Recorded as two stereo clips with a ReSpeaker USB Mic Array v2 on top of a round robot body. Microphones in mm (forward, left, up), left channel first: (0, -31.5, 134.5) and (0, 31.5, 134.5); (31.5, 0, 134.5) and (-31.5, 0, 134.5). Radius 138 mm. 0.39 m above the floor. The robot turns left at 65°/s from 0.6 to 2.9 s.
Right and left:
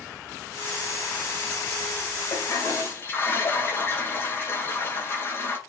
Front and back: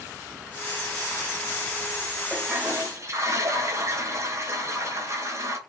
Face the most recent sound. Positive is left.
turn(degrees=-140)